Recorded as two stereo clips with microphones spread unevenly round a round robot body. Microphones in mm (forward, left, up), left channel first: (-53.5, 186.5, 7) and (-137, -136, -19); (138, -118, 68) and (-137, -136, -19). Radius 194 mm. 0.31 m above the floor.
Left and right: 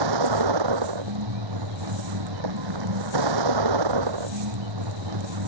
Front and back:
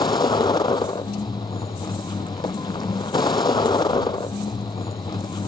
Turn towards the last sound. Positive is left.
turn(degrees=-70)